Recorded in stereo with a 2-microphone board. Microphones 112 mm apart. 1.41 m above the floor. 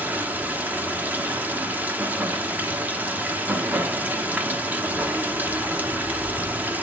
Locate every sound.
0.0 s running water: 15° right (ahead or behind), 1.1 m